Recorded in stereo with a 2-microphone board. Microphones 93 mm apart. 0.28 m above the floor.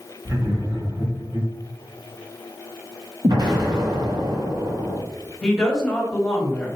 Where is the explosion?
50° right (ahead or behind), 1.1 m.